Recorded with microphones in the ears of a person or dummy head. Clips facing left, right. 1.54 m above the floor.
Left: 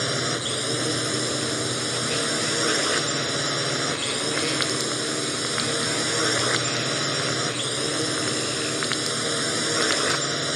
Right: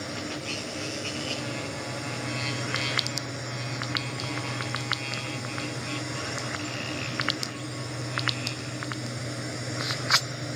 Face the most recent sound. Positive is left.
turn(degrees=70)  # may be behind; listen again after turning